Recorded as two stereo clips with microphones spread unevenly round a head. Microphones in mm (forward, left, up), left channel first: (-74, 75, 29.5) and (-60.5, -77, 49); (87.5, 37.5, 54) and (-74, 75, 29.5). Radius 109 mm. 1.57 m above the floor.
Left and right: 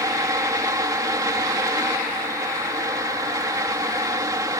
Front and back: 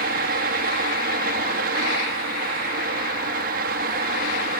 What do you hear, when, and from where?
0.0 s a fan: 150° right